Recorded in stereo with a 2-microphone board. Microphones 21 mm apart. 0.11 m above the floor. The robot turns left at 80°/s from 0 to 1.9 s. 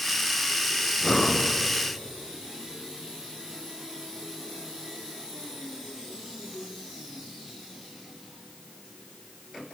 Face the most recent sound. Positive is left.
turn(degrees=65)